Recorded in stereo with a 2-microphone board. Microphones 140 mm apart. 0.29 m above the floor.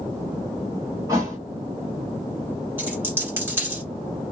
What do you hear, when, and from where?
1.1 s a thud: 25° right (ahead or behind), 1.3 m
2.8 s a dropped coin: 15° right (ahead or behind), 1.7 m